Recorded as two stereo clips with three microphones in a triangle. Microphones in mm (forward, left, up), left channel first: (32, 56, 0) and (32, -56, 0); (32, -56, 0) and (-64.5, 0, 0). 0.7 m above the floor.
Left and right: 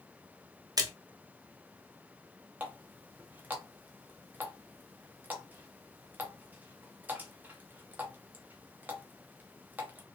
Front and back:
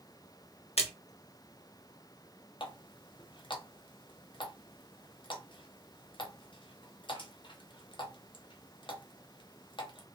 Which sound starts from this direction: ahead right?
A splash, at 0.8 s.